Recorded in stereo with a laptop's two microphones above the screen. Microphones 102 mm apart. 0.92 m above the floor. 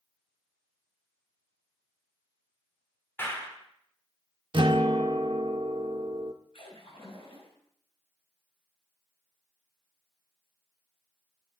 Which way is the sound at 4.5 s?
50° right (ahead or behind).